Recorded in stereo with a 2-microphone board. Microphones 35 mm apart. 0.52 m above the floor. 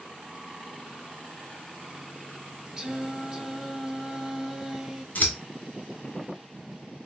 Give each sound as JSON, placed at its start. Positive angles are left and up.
{"t": 2.8, "sound": "singing", "side_deg": -20, "distance_m": 0.5}
{"t": 5.2, "sound": "scissors", "side_deg": 50, "distance_m": 1.5}